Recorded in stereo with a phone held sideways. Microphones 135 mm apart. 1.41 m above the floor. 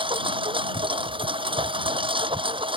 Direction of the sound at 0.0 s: 40° right (ahead or behind).